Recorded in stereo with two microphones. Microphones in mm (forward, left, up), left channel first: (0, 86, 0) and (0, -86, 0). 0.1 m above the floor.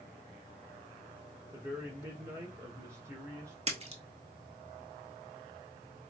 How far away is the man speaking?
About 1.6 m.